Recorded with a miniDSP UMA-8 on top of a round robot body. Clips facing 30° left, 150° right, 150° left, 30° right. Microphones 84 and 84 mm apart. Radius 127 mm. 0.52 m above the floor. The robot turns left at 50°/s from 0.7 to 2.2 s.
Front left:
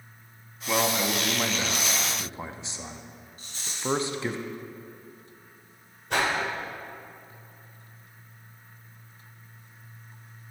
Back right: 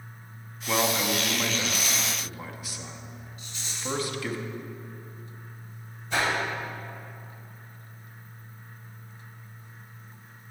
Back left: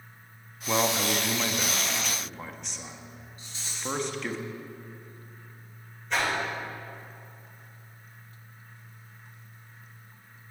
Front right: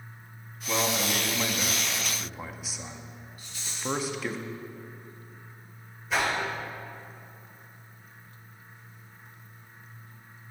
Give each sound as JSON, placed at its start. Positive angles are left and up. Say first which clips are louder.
{"t": 0.7, "sound": "a man speaking", "louder": "even, back left 2 dB", "azimuth_deg": 125, "distance_m": 0.7}
{"t": 3.4, "sound": "a rattle", "louder": "front left 4 dB, front right 1 dB", "azimuth_deg": 85, "distance_m": 2.0}
{"t": 6.1, "sound": "a whoosh", "louder": "front left 1 dB, front right 1 dB", "azimuth_deg": 55, "distance_m": 2.5}